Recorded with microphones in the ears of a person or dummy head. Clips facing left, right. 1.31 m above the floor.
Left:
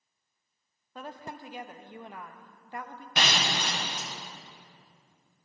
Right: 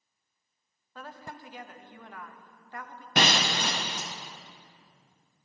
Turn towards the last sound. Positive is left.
turn(degrees=-40)  # may be behind; listen again after turning